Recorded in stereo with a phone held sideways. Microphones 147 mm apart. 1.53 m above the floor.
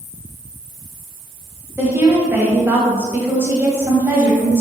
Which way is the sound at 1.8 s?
15° right (ahead or behind).